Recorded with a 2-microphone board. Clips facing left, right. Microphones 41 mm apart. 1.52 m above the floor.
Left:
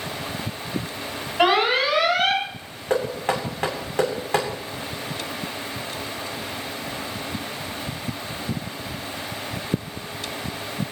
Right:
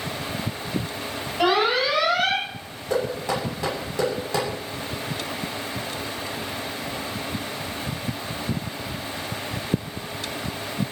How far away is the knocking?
About 8 m.